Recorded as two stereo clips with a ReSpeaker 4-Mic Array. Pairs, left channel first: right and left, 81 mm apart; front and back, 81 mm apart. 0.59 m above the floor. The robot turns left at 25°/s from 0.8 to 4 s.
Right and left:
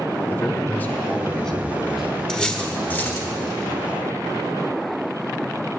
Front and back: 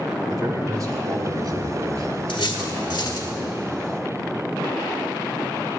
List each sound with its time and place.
0.3 s a man speaking: 155° right, 1.0 m; by 3.3 s 145° left, 1.0 m
2.3 s cutlery clinking: 10° right, 1.1 m; by 3.3 s 35° right, 1.1 m